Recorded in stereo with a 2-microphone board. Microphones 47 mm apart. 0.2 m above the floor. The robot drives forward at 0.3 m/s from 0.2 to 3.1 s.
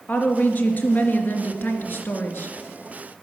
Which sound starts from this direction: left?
A woman speaking, at 0.1 s.